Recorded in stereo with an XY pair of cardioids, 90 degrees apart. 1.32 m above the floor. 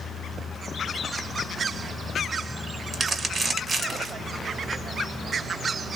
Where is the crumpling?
55° right, 1.1 m.